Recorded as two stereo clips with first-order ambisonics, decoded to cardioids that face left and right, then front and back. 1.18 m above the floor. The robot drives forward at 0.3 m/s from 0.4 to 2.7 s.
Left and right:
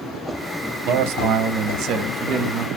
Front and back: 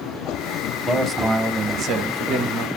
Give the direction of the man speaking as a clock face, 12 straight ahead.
3 o'clock.